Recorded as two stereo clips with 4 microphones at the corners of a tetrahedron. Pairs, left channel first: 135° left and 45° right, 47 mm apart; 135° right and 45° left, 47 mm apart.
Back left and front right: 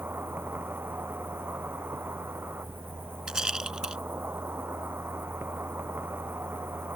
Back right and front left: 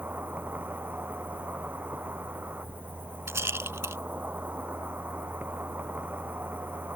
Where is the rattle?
30° left.